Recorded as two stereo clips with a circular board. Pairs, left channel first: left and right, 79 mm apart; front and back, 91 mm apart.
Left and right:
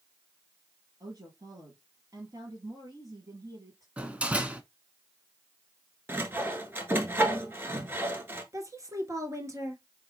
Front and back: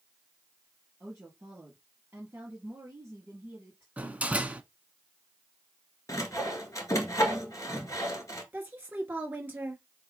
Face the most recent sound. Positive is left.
turn(degrees=-115)